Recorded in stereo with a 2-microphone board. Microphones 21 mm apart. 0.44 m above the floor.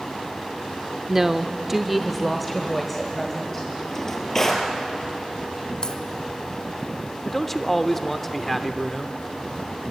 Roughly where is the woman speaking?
Centre.